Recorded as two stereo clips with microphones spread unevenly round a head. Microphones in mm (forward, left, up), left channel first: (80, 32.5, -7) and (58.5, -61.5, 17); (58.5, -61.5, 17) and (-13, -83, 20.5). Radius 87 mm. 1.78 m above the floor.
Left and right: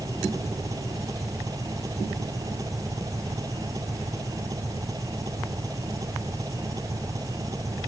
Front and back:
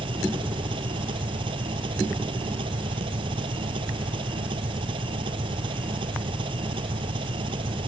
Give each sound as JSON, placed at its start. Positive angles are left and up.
{"t": 0.0, "sound": "an engine running", "azimuth_deg": -175}